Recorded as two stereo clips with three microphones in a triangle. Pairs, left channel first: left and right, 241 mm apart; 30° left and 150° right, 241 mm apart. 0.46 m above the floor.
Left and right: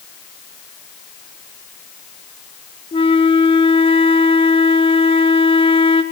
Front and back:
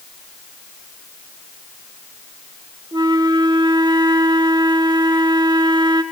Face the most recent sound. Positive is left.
turn(degrees=150)